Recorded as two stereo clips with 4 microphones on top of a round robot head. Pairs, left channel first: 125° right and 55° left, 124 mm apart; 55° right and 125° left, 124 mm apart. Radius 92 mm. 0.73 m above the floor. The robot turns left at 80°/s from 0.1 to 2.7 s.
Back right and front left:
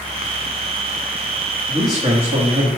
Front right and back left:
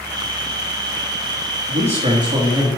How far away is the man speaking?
About 1.8 m.